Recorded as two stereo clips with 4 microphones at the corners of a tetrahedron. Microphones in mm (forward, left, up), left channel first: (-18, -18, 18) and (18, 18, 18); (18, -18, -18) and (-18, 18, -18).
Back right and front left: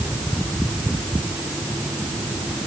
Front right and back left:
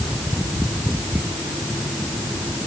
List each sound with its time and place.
Only background noise.